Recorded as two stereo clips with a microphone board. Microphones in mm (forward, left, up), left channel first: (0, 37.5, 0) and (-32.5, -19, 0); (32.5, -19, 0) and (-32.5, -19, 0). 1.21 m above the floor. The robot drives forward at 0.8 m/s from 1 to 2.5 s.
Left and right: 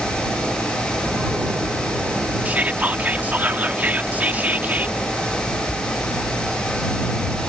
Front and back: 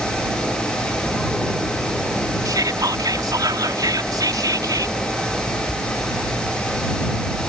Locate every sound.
2.5 s whispering: 175° left